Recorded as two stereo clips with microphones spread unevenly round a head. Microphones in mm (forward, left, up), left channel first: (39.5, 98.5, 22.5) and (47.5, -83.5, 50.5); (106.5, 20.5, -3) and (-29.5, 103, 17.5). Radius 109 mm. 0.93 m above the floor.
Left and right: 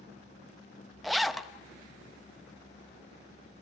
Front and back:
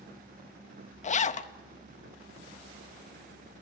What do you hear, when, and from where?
1.0 s a zipper: 5° left, 0.9 m